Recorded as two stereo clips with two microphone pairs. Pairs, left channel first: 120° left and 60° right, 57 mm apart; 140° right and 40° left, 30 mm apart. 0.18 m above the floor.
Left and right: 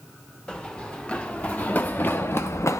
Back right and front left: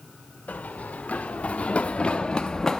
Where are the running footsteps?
165° right, 1.7 m; by 2.8 s 145° left, 0.8 m.